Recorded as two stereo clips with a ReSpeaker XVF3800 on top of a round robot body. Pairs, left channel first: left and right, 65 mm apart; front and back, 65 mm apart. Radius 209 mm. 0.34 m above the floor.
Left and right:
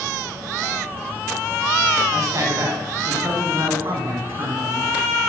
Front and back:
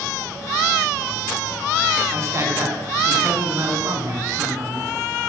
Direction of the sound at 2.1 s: 135° right.